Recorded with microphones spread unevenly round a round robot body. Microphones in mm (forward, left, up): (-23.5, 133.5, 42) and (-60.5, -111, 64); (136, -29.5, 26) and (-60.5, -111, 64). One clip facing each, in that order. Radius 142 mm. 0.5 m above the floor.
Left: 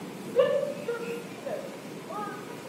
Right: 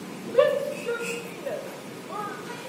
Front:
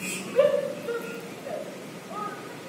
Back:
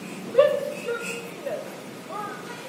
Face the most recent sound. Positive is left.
turn(degrees=-165)